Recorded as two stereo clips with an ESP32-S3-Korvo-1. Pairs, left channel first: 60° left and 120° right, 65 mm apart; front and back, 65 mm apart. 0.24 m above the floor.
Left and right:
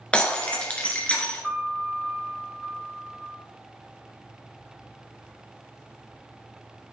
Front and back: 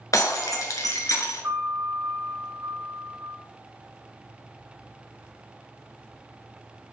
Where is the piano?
140° left, 4 m.